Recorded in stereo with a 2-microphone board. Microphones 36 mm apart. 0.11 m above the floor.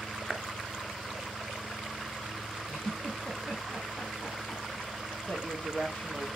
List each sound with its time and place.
0.3 s a clap: 10° right (ahead or behind), 1.0 m
2.7 s a giggle: 20° left (ahead or behind), 3.5 m
5.2 s a woman speaking: 40° left (ahead or behind), 3 m